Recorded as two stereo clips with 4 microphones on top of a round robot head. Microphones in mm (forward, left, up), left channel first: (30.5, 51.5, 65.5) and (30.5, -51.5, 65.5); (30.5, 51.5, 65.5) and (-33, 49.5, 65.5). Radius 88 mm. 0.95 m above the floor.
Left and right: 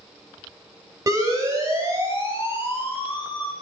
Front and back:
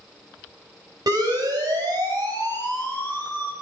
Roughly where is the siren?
Behind right.